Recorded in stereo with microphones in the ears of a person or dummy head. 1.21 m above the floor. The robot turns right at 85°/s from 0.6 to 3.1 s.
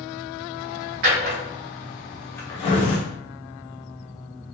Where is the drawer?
50° right (ahead or behind), 1.1 m; by 3.0 s 45° left (ahead or behind), 1.1 m.